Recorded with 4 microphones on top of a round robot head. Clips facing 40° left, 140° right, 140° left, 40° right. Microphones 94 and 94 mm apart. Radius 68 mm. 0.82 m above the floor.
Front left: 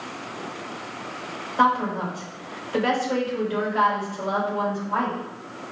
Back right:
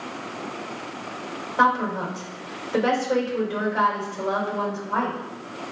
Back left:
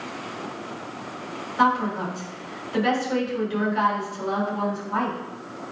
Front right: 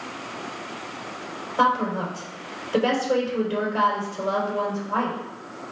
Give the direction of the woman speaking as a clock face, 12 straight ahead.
3 o'clock.